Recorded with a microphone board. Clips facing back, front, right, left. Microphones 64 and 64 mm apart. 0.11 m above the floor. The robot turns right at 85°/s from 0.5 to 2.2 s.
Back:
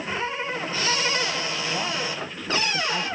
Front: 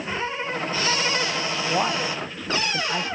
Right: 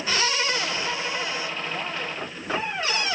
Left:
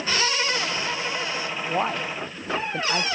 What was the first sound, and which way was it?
A man speaking, 35° left.